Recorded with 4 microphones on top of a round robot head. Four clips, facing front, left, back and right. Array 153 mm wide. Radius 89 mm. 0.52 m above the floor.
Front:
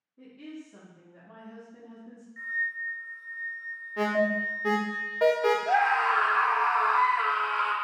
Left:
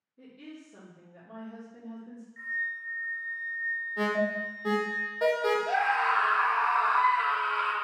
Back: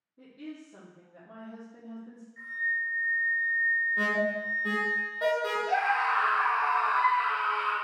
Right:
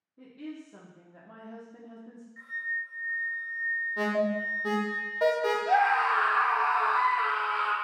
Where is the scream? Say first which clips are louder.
Right 3 dB, front 3 dB; 40° right, 1.2 m.